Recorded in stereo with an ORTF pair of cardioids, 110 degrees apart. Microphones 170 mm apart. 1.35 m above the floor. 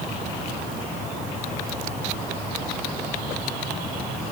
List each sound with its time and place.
Only background noise.